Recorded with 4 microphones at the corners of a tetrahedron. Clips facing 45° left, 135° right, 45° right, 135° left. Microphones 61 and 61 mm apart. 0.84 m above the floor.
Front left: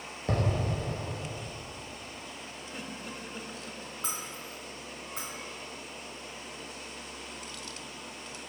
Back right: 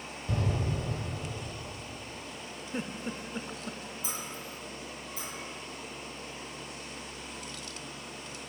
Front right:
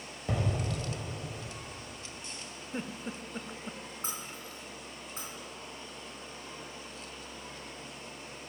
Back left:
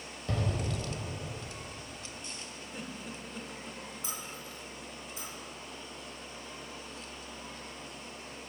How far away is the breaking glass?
About 4 m.